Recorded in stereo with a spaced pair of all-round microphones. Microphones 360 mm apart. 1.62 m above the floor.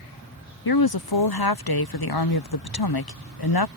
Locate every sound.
0.7 s a woman speaking: 80° left